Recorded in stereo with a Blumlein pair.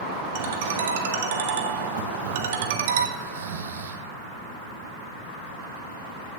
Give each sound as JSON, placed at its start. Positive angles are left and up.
{"t": 0.3, "sound": "a ringtone", "azimuth_deg": -55, "distance_m": 1.0}
{"t": 3.2, "sound": "snoring", "azimuth_deg": -60, "distance_m": 0.9}